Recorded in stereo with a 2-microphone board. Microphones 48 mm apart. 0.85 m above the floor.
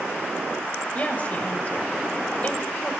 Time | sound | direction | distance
0.9 | a woman speaking | 30° left (ahead or behind) | 4 m